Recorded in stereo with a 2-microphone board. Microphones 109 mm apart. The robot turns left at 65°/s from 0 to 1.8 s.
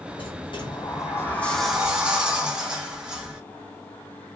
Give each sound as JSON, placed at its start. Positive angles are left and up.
{"t": 0.2, "sound": "a sliding door", "azimuth_deg": 95, "distance_m": 0.7}